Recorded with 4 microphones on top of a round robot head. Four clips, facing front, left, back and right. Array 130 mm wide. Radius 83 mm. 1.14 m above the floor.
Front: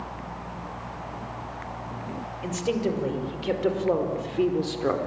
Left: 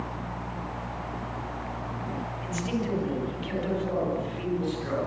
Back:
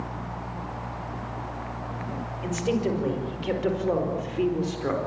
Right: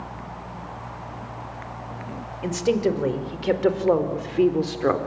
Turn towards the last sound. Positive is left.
turn(degrees=-75)